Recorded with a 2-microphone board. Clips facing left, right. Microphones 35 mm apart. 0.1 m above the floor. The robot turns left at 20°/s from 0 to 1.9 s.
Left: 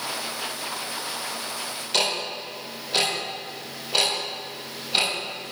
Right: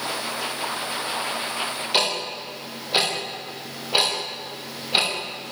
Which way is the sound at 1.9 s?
20° right (ahead or behind).